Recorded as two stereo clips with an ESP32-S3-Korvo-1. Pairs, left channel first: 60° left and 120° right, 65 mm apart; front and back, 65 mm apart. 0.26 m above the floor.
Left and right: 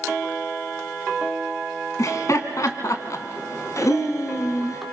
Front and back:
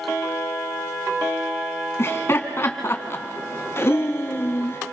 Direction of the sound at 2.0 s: 40° left.